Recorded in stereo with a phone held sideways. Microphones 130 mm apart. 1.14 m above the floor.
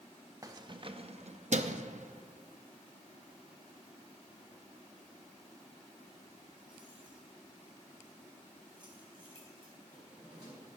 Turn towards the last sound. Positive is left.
turn(degrees=-35)  # may be behind; listen again after turning